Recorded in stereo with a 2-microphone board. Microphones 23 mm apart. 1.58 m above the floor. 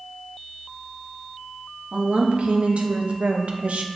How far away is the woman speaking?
About 1.9 m.